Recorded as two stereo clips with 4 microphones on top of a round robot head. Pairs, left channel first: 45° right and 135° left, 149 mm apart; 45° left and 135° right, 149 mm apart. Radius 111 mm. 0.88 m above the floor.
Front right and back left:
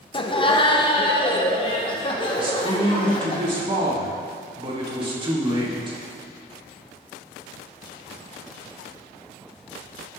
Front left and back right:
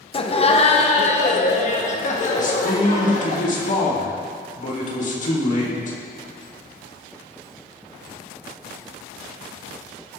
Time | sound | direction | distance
0.1 | laughter | 5° left | 1.4 m
2.4 | a man speaking | 80° left | 4 m